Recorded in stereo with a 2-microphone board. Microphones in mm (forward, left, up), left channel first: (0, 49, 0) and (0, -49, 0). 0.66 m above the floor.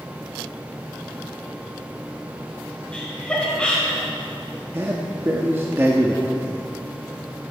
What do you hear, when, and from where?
2.9 s laughter: 10° left (ahead or behind), 2 m
4.7 s a man speaking: 25° right (ahead or behind), 1.0 m